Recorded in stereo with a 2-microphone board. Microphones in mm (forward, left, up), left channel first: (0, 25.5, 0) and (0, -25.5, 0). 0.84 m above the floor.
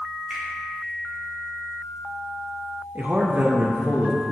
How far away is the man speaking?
About 0.5 m.